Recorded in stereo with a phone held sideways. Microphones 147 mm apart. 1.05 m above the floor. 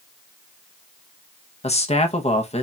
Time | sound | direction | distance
1.6 | a man speaking | 45° left (ahead or behind) | 0.7 m